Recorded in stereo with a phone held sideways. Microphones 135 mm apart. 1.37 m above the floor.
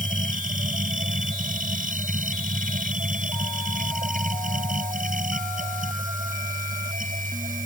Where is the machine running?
85° right.